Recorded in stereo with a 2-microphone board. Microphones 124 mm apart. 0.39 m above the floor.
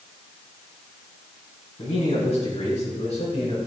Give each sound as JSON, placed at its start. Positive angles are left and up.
{"t": 1.8, "sound": "a man speaking", "side_deg": 70, "distance_m": 3.0}